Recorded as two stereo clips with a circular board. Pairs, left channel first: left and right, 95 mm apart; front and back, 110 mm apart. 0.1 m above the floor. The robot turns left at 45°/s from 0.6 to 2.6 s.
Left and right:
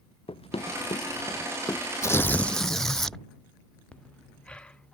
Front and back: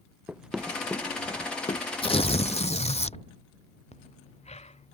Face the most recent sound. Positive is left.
turn(degrees=10)